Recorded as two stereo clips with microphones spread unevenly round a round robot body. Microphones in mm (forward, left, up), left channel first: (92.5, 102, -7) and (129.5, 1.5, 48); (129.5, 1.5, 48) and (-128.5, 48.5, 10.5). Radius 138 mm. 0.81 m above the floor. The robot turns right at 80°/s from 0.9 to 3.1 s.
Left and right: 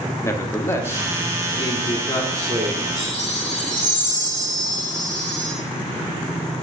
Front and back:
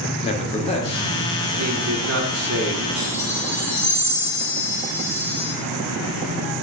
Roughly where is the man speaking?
Ahead left.